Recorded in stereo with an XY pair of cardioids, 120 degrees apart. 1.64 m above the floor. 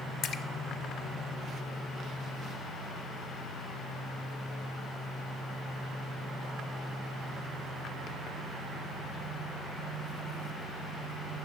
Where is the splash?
50° left, 0.5 m.